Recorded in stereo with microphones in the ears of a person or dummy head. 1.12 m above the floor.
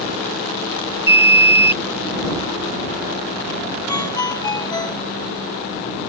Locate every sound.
1.1 s an alarm: 15° right (ahead or behind)
3.9 s a ringtone: 20° left (ahead or behind)